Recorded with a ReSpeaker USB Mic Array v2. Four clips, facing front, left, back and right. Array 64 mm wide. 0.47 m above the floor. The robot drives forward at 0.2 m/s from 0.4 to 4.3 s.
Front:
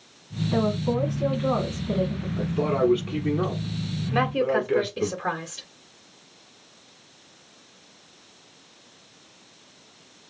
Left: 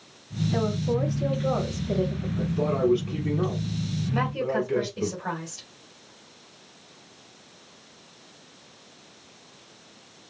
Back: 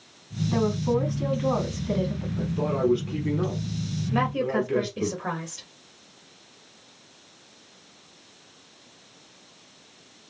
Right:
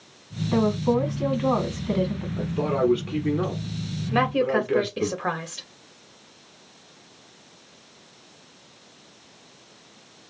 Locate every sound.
0.5 s a woman speaking: 90° right, 3 m; by 2.3 s 95° right, 3 m
2.4 s a man speaking: 45° right, 1.5 m; by 5.1 s 70° right, 1.3 m
4.1 s a woman speaking: 75° right, 1.7 m